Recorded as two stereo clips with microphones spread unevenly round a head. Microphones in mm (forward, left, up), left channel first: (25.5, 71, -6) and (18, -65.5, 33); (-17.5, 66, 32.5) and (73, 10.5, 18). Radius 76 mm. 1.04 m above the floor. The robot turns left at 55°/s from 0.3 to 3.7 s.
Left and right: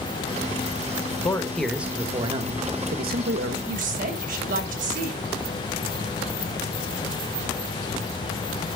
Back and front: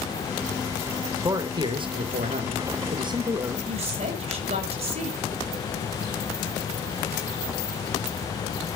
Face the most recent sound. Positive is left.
turn(degrees=-60)